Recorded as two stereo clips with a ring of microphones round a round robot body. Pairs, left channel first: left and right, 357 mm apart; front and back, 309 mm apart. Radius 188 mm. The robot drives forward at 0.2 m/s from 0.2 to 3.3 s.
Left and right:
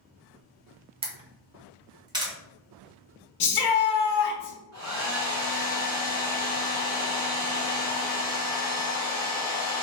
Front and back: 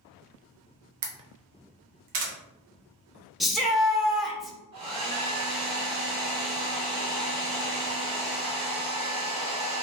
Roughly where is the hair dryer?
Behind right.